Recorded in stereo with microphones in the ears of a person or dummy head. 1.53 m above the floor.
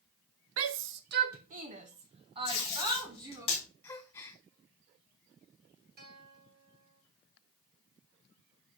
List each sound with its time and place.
0.6 s a shout: 75° right (ahead or behind), 0.8 m; by 3.5 s 20° right (ahead or behind), 2.5 m
2.5 s tape being pulled: 30° left (ahead or behind), 4.5 m
3.8 s a gasp: 15° left (ahead or behind), 1.5 m
6.0 s a guitar: 50° right (ahead or behind), 1.5 m